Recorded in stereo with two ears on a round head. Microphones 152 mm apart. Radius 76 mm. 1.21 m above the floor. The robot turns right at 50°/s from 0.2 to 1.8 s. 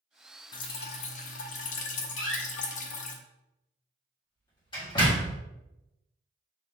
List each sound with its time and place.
0.5 s dripping: 40° left, 0.7 m; by 3.2 s 100° left, 0.7 m
2.2 s a door slam: 25° left (ahead or behind), 1.8 m